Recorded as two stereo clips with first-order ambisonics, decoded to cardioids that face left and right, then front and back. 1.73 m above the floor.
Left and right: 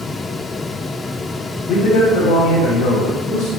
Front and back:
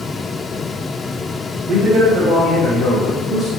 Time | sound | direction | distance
1.7 | a man speaking | 125° left | 1.1 m